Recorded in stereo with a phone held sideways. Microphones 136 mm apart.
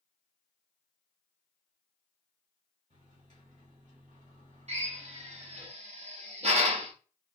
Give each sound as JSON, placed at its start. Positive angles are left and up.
{"t": 2.9, "sound": "a microwave", "side_deg": -60, "distance_m": 3.5}
{"t": 4.7, "sound": "a drill", "side_deg": -50, "distance_m": 1.7}